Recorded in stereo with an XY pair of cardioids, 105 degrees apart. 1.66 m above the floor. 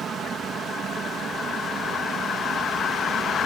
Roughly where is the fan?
Ahead right.